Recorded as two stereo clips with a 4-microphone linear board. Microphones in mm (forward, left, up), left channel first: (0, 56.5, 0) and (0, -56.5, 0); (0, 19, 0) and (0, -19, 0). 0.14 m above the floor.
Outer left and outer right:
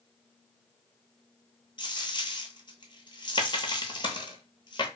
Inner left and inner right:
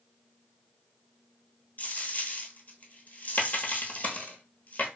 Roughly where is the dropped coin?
Left.